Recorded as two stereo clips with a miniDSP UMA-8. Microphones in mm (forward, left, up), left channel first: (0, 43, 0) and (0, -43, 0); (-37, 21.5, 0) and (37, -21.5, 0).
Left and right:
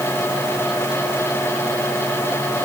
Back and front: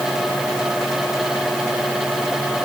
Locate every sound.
Only background noise.